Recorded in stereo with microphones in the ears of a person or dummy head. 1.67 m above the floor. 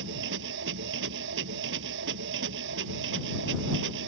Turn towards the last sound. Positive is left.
turn(degrees=-75)  # may be behind; listen again after turning